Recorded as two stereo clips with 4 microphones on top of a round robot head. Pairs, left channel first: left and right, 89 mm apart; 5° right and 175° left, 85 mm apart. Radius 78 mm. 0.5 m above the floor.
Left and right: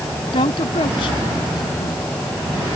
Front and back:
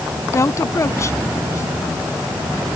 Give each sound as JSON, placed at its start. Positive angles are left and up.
{"t": 0.3, "sound": "a woman speaking", "azimuth_deg": 50}